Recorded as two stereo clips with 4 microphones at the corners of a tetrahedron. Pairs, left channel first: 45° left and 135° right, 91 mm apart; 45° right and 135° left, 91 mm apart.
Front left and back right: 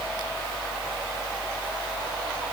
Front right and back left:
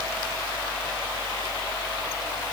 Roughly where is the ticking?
No ticking in this recording.